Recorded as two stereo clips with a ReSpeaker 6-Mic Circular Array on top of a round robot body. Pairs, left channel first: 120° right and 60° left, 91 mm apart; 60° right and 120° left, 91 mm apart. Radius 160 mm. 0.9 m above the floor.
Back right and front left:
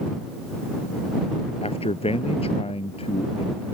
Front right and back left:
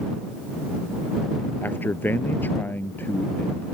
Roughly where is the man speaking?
Behind right.